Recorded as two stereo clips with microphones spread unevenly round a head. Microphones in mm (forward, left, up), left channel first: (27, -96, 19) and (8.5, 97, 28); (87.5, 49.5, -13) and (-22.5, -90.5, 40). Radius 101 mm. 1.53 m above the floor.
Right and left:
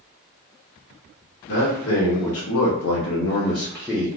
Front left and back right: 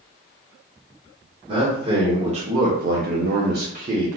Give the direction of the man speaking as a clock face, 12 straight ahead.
2 o'clock.